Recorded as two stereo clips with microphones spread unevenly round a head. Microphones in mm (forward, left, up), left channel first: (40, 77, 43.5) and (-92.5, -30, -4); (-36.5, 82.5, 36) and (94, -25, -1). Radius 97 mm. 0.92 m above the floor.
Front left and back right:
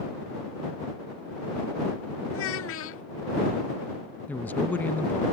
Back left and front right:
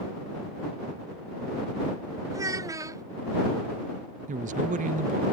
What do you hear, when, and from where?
2.3 s a child speaking: 35° left
4.3 s a man speaking: 50° right